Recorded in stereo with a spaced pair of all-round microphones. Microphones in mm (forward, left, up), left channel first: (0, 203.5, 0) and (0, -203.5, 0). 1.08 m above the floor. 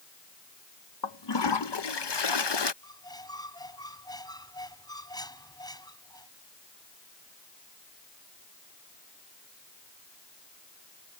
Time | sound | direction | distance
1.0 | a toilet flushing | 80° left | ?
2.8 | a squeak | 10° left (ahead or behind) | ?